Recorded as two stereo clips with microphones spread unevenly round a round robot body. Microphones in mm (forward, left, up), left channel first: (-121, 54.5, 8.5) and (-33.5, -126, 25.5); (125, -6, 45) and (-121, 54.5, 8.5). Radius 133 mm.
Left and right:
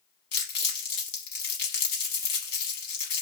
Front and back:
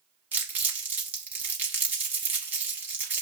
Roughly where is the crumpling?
Left.